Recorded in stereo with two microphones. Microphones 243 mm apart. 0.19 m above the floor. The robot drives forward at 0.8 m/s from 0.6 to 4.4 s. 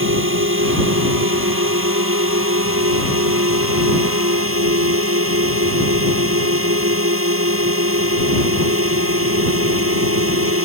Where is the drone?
55° right (ahead or behind); by 10.7 s 60° right (ahead or behind).